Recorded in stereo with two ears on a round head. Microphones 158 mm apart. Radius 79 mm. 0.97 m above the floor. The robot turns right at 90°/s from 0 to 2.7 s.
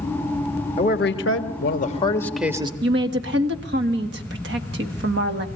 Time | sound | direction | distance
0.8 | a man speaking | 35° left | 1.5 m
2.8 | a woman speaking | 70° right (ahead or behind) | 1.7 m